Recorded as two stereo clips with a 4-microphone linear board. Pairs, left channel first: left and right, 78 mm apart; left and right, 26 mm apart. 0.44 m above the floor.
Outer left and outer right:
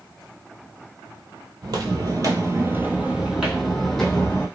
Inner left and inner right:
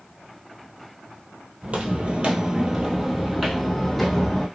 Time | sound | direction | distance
1.6 | footsteps | 65° right (ahead or behind) | 0.8 m